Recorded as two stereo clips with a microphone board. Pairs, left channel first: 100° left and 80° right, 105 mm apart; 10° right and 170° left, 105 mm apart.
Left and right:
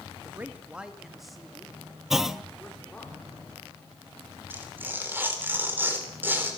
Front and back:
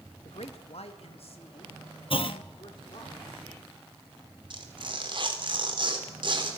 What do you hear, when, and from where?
0.2 s a man speaking: 10° right, 1.8 m; by 3.1 s 25° left, 4.5 m
2.1 s a clunk: 10° left, 0.8 m
4.5 s tearing paper: 150° right, 3.5 m